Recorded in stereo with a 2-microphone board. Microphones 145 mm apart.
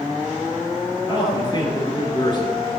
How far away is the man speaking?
About 2.5 m.